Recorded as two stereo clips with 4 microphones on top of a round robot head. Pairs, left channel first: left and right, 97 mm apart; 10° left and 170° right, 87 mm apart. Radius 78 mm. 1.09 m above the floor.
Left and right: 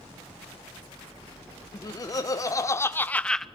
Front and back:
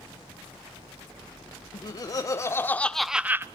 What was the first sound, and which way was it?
Laughter, 45° left.